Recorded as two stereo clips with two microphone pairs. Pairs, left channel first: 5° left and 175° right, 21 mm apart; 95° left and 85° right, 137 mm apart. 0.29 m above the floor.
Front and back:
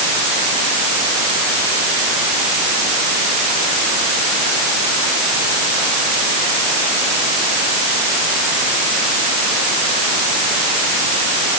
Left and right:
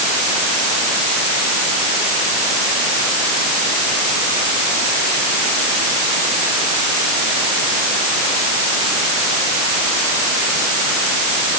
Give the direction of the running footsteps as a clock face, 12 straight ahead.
I don't hear running footsteps.